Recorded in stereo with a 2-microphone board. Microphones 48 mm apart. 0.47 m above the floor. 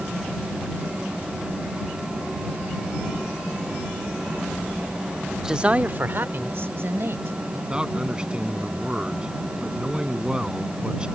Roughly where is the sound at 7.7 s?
Right.